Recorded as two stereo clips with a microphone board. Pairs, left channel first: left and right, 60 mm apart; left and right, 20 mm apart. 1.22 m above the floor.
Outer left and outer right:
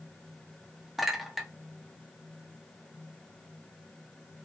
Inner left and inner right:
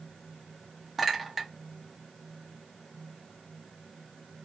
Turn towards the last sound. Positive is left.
turn(degrees=0)  # may be behind; listen again after turning